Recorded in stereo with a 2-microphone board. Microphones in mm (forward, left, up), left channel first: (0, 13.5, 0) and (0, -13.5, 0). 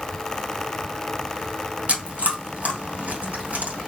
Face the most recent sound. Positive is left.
turn(degrees=-65)  # may be behind; listen again after turning